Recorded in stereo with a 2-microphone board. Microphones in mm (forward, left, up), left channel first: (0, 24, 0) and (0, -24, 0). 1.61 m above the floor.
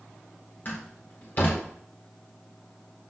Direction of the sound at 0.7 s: 40° left (ahead or behind).